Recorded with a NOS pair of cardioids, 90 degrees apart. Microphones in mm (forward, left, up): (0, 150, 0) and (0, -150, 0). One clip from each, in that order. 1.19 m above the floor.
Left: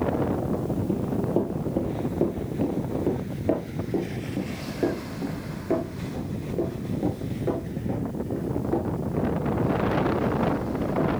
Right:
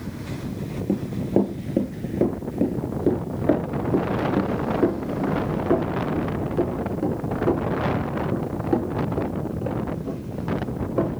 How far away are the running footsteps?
About 4 m.